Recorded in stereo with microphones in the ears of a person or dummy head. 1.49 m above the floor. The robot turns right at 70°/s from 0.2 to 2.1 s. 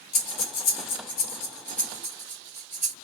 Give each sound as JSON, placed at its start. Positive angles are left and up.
{"t": 0.1, "sound": "breathing", "side_deg": 50, "distance_m": 1.1}